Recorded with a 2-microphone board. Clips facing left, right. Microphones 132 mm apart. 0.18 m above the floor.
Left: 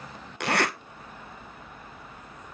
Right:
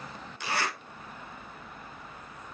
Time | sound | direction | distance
0.4 | a zipper | 80° left | 0.9 m